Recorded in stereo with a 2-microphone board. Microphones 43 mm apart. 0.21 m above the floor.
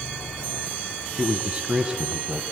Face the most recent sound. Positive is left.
turn(degrees=-30)  # may be behind; listen again after turning